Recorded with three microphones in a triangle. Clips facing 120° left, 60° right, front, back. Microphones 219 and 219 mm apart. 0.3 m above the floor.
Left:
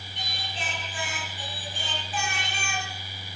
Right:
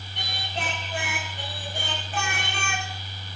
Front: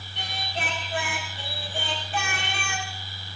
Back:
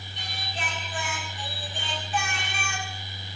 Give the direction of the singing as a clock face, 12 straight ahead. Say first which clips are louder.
Right 5 dB, front 4 dB; 1 o'clock.